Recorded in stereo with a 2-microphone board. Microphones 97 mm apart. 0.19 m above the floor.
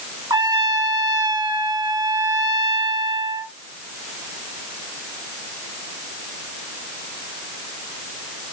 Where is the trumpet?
50° right (ahead or behind), 1.8 m.